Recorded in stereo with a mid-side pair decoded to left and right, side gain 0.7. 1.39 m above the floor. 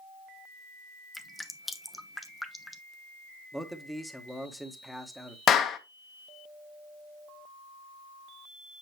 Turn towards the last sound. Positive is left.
turn(degrees=40)